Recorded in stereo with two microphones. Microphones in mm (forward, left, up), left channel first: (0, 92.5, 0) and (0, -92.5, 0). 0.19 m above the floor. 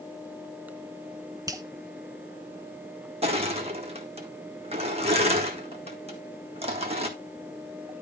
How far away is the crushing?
About 1.8 m.